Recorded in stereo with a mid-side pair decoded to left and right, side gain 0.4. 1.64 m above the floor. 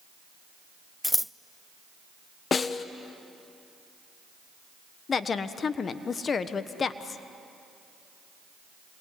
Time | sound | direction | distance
1.0 | scissors | 5° left | 0.5 m
2.5 | a snare drum | 45° left | 1.1 m
5.1 | a woman speaking | 50° left | 1.3 m